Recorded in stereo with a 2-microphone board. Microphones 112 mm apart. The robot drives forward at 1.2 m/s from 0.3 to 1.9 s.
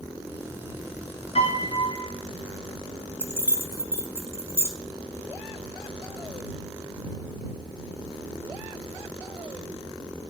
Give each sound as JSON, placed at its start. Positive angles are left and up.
{"t": 1.4, "sound": "a piano", "side_deg": 65, "distance_m": 1.2}
{"t": 3.2, "sound": "keys jangling", "side_deg": -20, "distance_m": 1.0}